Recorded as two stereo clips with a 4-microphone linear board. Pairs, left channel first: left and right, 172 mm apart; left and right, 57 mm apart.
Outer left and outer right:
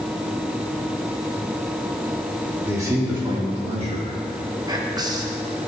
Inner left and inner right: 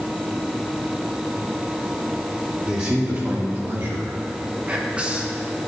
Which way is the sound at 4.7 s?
20° right (ahead or behind).